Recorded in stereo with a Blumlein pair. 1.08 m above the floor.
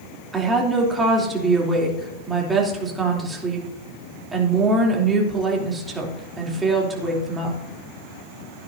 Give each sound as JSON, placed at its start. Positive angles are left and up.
{"t": 0.3, "sound": "a woman speaking", "azimuth_deg": -15, "distance_m": 3.0}